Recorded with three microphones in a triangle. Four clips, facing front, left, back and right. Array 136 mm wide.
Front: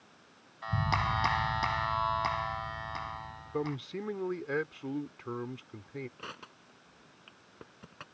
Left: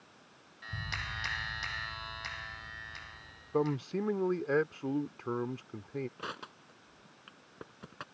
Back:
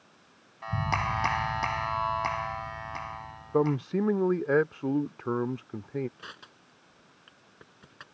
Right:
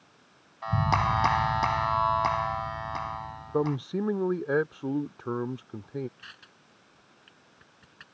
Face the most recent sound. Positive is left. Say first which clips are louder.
# left 10 dB, front 2 dB
turn(degrees=75)